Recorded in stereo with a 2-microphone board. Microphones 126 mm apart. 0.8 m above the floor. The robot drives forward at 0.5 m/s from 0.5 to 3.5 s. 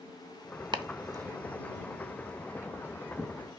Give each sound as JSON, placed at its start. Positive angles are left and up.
{"t": 0.7, "sound": "chopping", "side_deg": -40, "distance_m": 0.6}